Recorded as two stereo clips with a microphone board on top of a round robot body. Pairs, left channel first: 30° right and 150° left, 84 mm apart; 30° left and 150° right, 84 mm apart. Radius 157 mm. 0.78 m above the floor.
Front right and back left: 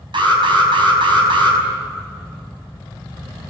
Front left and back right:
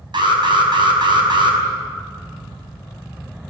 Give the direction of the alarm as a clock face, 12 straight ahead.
6 o'clock.